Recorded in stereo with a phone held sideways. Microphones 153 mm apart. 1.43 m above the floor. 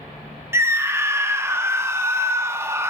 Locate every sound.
0.5 s a scream: 15° right (ahead or behind), 0.7 m